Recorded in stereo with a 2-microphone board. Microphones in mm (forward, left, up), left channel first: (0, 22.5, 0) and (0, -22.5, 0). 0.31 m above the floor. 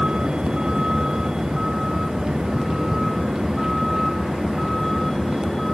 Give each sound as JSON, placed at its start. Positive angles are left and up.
{"t": 0.0, "sound": "a vehicle", "side_deg": -15}